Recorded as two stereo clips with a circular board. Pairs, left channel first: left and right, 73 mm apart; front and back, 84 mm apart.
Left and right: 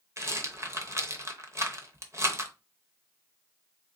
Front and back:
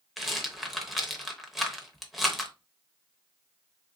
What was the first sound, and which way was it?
A rattle, 90° right.